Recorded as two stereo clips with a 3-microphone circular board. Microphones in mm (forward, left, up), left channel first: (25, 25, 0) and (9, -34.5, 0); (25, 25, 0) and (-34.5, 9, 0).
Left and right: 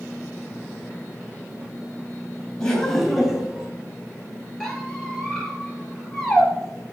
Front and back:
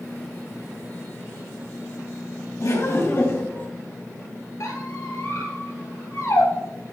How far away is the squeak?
About 2.5 m.